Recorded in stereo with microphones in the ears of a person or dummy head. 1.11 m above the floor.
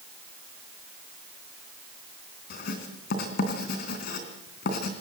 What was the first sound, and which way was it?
Writing, 55° left (ahead or behind).